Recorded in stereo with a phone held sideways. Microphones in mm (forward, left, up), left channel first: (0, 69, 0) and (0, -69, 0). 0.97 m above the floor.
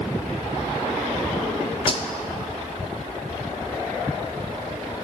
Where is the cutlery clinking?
35° left (ahead or behind), 0.7 m.